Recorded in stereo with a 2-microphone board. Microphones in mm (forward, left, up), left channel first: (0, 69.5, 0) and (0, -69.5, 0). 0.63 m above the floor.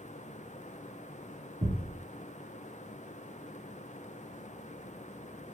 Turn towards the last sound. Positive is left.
turn(degrees=-65)  # may be behind; listen again after turning